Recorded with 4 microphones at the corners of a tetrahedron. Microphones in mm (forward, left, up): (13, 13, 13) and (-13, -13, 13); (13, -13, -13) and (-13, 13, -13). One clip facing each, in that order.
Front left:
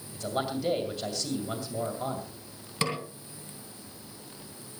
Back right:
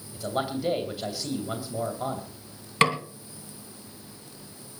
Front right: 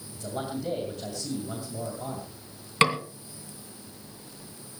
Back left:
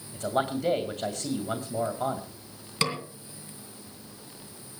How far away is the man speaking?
About 2.5 m.